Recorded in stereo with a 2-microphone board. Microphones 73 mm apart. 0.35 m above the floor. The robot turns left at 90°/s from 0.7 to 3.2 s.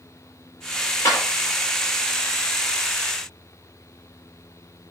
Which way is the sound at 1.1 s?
40° left (ahead or behind).